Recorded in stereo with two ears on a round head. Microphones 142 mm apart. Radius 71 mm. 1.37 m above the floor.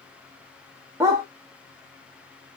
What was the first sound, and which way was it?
A dog barking, 20° right (ahead or behind).